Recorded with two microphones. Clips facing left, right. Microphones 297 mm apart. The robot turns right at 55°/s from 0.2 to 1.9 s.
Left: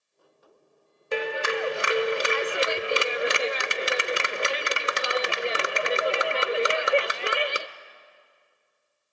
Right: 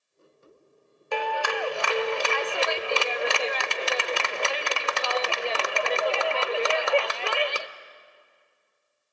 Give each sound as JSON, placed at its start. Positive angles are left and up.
{"t": 1.1, "sound": "a clap", "side_deg": 25, "distance_m": 0.6}